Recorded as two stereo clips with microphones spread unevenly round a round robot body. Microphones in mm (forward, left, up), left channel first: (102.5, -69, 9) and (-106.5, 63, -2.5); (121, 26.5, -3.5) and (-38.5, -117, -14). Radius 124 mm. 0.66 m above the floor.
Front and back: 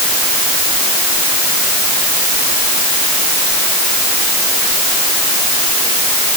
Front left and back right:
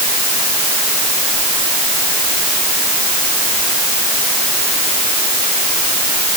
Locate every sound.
Only background noise.